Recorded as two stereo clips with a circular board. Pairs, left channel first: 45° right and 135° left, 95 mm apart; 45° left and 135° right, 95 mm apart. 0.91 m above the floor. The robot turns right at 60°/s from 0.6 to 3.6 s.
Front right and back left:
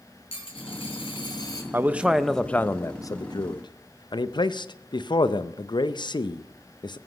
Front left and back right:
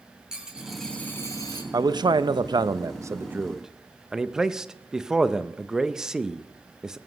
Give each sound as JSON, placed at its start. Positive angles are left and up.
{"t": 0.3, "sound": "a dropped coin", "azimuth_deg": -50, "distance_m": 2.5}
{"t": 1.7, "sound": "a man speaking", "azimuth_deg": -165, "distance_m": 0.6}